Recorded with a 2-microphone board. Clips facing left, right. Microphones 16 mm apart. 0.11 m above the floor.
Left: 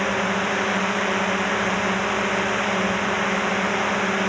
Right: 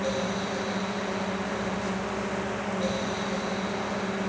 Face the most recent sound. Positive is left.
turn(degrees=45)  # may be behind; listen again after turning